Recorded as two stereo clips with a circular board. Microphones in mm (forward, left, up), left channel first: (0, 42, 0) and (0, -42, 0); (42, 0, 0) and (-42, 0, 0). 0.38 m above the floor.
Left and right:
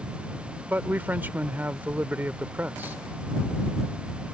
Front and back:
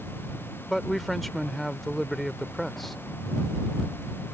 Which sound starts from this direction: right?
A man speaking, at 0.7 s.